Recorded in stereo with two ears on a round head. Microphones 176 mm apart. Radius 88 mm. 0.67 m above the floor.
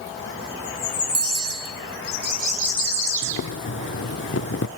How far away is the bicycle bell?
About 7.5 m.